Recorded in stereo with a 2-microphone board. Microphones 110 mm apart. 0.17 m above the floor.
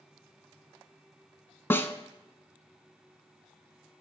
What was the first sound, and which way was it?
A snare drum, 20° left (ahead or behind).